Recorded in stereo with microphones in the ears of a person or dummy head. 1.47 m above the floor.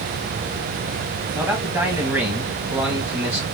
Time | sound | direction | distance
1.4 | a man speaking | 10° right (ahead or behind) | 1.4 m